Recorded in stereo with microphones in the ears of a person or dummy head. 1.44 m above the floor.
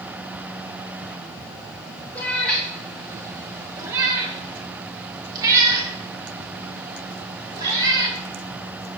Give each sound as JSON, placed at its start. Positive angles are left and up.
{"t": 2.1, "sound": "a cat meowing", "side_deg": 10, "distance_m": 0.9}